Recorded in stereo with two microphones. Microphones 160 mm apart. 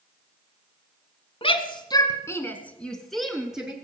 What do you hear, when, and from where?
1.4 s a shout: 35° left (ahead or behind), 1.2 m; by 3.7 s 5° right (ahead or behind), 2 m